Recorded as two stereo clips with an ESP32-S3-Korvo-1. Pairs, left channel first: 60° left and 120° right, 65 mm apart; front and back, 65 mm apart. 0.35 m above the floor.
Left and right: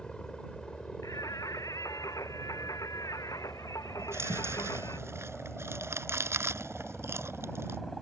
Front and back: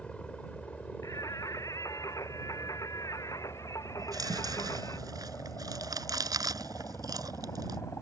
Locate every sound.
0.0 s a helicopter: 20° left; by 8.0 s 25° right
1.0 s singing: 30° left
4.0 s chewing: 170° right